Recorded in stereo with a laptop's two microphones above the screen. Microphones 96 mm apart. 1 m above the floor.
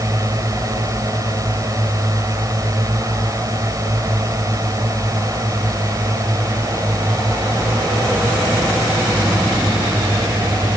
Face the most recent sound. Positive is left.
turn(degrees=-35)  # may be behind; listen again after turning